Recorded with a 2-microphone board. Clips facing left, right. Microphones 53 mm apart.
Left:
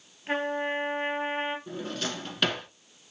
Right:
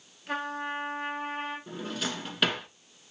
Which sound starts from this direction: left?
A trumpet, at 0.3 s.